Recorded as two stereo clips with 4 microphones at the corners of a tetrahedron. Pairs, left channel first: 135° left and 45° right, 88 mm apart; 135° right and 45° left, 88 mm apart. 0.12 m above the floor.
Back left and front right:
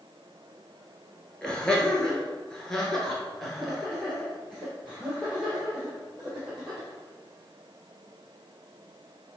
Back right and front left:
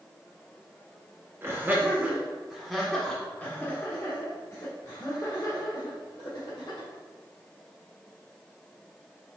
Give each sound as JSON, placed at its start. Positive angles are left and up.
{"t": 1.4, "sound": "laughter", "azimuth_deg": 65, "distance_m": 1.5}